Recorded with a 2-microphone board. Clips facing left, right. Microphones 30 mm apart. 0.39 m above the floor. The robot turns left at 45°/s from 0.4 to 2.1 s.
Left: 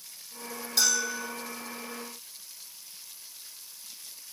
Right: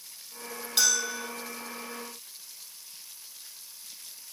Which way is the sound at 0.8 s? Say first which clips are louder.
Even; 50° right (ahead or behind).